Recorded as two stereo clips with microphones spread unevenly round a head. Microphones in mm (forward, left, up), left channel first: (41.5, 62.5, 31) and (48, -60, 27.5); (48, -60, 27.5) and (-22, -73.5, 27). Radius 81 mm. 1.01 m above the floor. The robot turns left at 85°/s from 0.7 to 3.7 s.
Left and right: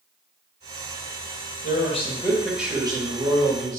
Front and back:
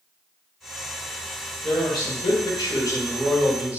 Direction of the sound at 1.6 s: 75° left.